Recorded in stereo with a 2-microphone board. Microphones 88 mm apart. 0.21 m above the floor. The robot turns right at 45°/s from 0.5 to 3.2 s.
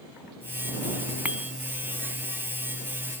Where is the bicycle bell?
15° right (ahead or behind); by 1.5 s 5° right (ahead or behind).